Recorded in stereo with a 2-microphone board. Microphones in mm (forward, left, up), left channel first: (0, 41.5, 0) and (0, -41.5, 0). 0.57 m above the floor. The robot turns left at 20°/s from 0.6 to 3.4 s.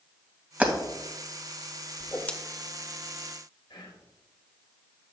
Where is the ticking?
No ticking in this recording.